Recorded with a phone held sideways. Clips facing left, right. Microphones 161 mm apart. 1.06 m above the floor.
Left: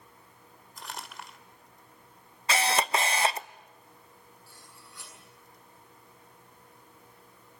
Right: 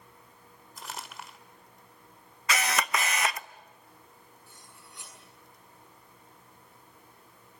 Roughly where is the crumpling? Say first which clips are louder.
Even; centre.